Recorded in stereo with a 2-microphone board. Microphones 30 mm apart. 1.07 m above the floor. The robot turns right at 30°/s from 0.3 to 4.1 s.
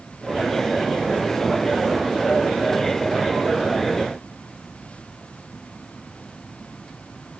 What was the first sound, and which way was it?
Only background noise.